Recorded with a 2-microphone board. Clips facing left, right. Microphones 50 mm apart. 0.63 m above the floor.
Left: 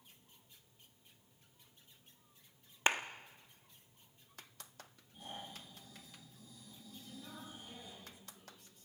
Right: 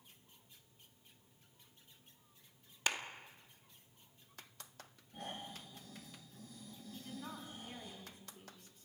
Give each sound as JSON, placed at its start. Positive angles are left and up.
{"t": 2.9, "sound": "a clap", "side_deg": 35, "distance_m": 1.0}
{"t": 5.1, "sound": "snoring", "side_deg": -70, "distance_m": 9.0}
{"t": 6.9, "sound": "a woman speaking", "side_deg": -55, "distance_m": 6.0}